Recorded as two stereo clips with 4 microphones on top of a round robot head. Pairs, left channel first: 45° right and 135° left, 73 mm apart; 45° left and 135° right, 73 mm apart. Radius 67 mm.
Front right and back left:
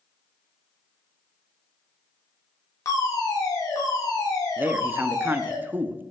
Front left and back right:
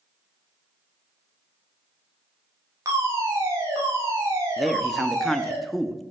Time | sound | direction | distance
2.9 | a fire alarm | 85° right | 6 m
4.6 | a man speaking | 135° left | 0.9 m